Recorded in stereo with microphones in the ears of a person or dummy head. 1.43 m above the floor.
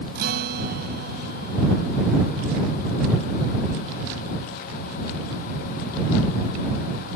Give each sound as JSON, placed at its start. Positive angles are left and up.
{"t": 0.1, "sound": "a guitar", "side_deg": -55}